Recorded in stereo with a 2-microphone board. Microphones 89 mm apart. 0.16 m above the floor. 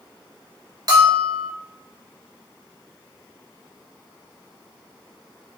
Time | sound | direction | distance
0.9 | a bell | 40° right (ahead or behind) | 1.3 m